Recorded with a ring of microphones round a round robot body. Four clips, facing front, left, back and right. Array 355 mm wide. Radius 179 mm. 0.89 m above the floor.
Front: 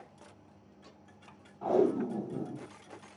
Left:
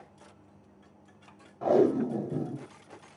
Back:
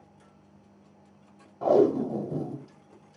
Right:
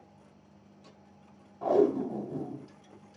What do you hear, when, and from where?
1.6 s tape being pulled: 160° left, 0.5 m